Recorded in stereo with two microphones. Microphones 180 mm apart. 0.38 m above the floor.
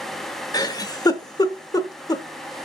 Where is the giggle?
20° left (ahead or behind), 0.7 m.